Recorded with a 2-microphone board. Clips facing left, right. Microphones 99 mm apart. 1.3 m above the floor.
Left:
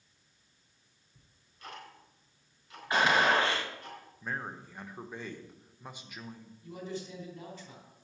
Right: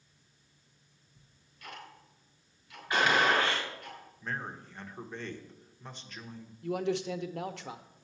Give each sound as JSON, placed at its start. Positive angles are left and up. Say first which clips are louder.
{"t": 1.1, "sound": "ticking", "louder": "left 2 dB", "side_deg": 35, "distance_m": 4.0}
{"t": 2.9, "sound": "a gunshot", "louder": "left 1 dB", "side_deg": 30, "distance_m": 2.0}
{"t": 4.2, "sound": "a man speaking", "louder": "even", "side_deg": 10, "distance_m": 1.0}
{"t": 6.6, "sound": "a man speaking", "louder": "right 9 dB", "side_deg": -75, "distance_m": 0.8}